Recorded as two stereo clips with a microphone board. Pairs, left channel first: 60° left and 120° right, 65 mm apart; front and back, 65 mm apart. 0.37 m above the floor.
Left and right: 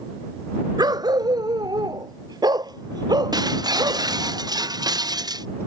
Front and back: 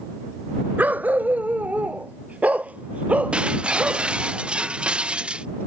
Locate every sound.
0.8 s a dog barking: 115° right; by 4.1 s 110° right
3.3 s breaking glass: 105° right